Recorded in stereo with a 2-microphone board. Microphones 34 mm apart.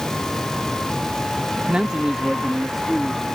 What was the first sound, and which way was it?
A man speaking, 30° right (ahead or behind).